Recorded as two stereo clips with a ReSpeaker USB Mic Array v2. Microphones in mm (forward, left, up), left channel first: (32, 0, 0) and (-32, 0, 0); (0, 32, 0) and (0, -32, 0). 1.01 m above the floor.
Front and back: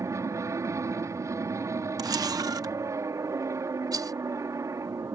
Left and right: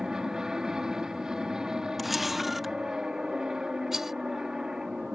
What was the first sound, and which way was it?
An aircraft, 170° right.